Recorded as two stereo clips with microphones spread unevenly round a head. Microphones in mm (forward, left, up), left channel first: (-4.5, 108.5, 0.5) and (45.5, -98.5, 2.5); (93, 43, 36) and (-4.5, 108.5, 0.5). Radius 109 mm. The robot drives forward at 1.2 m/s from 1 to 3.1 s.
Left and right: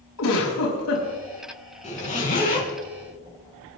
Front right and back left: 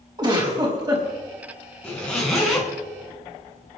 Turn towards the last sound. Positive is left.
turn(degrees=60)